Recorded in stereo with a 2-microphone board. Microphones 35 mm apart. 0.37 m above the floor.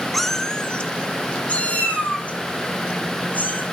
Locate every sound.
0.1 s a cat meowing: centre (ahead or behind), 0.7 m; by 3.6 s 50° left (ahead or behind), 3 m